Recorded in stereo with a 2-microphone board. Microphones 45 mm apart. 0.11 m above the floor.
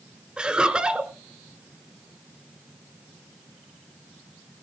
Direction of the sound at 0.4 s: 20° right (ahead or behind).